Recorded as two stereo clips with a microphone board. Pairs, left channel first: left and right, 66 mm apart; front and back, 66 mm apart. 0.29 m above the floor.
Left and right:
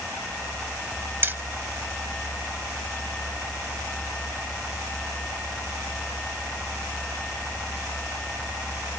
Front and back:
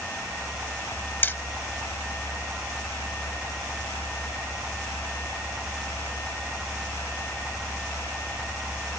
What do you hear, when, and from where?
1.2 s hammering: 50° right, 0.9 m